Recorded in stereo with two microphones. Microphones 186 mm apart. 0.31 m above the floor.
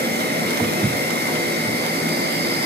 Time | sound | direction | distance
0.0 | an insect | 60° right (ahead or behind) | 4.5 m